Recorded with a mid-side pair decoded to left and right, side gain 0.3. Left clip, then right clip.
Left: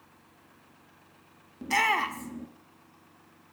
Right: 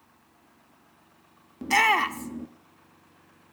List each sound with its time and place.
1.6 s a shout: 45° right, 0.7 m